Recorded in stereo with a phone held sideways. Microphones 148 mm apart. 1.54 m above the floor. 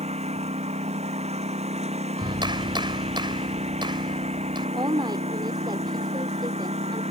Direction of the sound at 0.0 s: 45° right (ahead or behind).